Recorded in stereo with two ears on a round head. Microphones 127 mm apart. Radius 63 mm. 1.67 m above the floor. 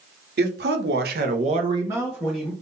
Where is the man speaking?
75° right (ahead or behind), 1.0 m; by 2.5 s centre (ahead or behind), 1.0 m.